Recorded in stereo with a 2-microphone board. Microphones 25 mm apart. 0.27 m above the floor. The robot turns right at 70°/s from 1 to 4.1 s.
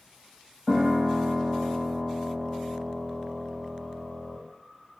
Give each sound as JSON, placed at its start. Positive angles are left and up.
{"t": 0.7, "sound": "a piano", "azimuth_deg": 15, "distance_m": 1.3}